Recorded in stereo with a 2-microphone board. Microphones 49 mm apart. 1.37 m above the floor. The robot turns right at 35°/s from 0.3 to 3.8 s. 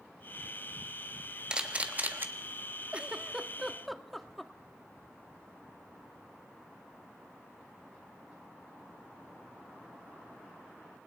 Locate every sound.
1.5 s a camera shutter: 20° right (ahead or behind), 1.4 m; by 2.3 s 45° right (ahead or behind), 1.4 m
2.9 s a giggle: 25° right (ahead or behind), 1.2 m; by 4.5 s centre (ahead or behind), 1.2 m